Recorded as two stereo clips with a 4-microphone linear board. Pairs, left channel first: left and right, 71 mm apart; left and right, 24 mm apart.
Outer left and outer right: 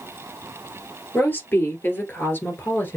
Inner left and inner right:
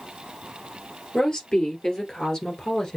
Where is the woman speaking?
30° left (ahead or behind), 2.5 m.